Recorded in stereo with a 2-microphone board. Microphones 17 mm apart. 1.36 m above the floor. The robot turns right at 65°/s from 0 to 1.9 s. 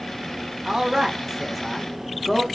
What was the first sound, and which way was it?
A man speaking, 65° right.